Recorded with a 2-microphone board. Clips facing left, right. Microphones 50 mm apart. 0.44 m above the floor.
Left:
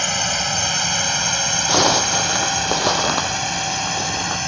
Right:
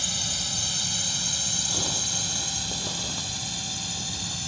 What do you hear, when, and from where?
0.0 s a drone: 60° left (ahead or behind)
1.7 s a zipper: 85° left